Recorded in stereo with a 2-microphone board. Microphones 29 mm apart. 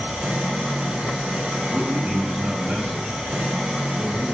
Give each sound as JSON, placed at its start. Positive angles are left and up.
{"t": 0.0, "sound": "an engine running", "side_deg": -70, "distance_m": 2.5}
{"t": 1.7, "sound": "a man speaking", "side_deg": -55, "distance_m": 3.0}